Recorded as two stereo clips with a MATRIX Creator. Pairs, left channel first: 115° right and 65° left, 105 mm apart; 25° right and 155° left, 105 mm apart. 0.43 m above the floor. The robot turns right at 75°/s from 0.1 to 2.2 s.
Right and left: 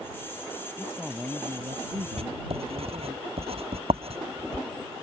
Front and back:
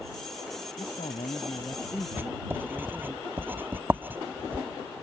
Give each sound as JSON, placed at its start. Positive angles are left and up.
{"t": 0.8, "sound": "a man speaking", "azimuth_deg": -35}
{"t": 2.2, "sound": "writing", "azimuth_deg": 85}